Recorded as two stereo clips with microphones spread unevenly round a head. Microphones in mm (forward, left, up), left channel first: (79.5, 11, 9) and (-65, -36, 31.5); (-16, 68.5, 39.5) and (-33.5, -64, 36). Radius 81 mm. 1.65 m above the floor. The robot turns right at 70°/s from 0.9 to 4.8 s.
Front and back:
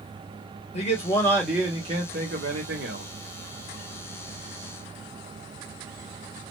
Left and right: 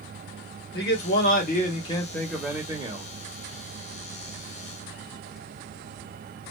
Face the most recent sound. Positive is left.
turn(degrees=-15)